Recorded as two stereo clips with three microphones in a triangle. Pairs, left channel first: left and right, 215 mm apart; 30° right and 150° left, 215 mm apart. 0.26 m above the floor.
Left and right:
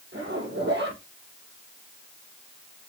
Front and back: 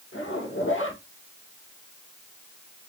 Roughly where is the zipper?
Ahead right.